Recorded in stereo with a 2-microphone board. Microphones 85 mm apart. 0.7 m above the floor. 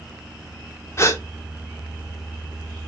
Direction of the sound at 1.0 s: 35° left (ahead or behind).